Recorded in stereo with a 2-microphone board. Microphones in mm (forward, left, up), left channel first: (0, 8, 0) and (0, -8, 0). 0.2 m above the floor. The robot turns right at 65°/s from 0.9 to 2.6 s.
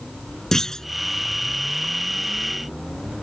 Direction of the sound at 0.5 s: 30° left (ahead or behind).